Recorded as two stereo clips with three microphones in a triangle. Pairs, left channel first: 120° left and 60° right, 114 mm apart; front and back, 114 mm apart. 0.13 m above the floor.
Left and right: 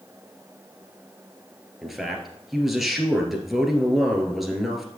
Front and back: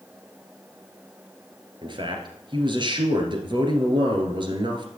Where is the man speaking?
145° right, 2 m.